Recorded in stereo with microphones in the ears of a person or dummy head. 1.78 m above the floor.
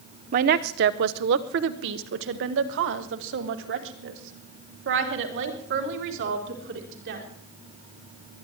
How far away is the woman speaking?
About 0.8 m.